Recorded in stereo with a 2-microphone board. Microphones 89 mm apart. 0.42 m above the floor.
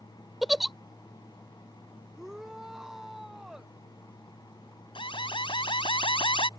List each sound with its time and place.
0.4 s a giggle: centre (ahead or behind)
2.1 s a shout: 5° right (ahead or behind)
5.0 s an alarm: 70° left (ahead or behind)